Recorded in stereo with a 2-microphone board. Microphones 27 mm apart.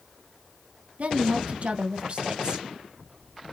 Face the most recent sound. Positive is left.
turn(degrees=-35)  # may be behind; listen again after turning